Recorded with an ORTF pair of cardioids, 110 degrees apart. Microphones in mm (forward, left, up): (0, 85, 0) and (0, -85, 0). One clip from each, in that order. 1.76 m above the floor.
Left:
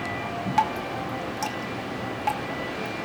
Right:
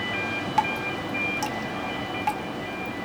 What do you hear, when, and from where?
0.6 s dripping: straight ahead, 3 m